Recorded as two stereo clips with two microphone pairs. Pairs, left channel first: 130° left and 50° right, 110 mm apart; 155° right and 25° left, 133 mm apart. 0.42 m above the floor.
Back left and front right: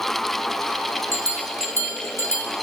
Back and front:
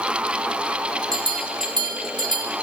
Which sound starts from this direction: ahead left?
A bell, at 1.1 s.